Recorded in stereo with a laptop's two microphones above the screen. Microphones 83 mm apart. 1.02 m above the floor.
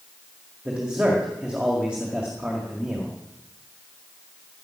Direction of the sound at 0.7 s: 15° right (ahead or behind).